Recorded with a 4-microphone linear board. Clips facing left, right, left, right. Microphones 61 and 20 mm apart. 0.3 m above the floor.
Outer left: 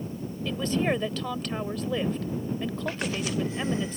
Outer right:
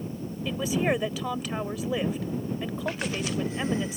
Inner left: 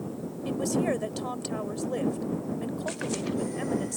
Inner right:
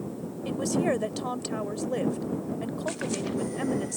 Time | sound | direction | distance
0.5 | a woman speaking | 10° right (ahead or behind) | ?